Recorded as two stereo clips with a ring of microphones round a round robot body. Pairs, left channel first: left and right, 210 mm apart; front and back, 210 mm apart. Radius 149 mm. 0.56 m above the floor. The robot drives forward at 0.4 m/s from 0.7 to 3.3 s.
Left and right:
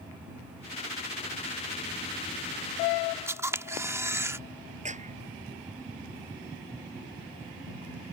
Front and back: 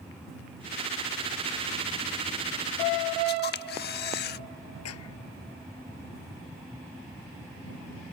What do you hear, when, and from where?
3.3 s a camera shutter: 15° right
4.8 s a clap: 35° right